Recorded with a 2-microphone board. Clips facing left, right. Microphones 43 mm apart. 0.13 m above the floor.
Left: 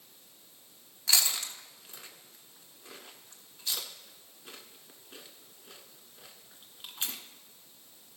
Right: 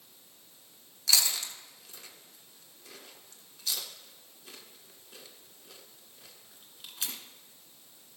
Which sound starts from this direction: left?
Chewing, at 1.1 s.